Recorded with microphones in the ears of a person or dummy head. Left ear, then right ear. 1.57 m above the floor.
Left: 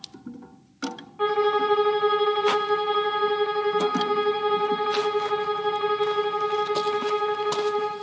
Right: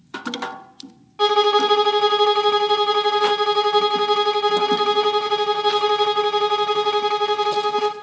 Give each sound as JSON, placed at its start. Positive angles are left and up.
{"t": 1.2, "sound": "a violin", "side_deg": -85, "distance_m": 1.0}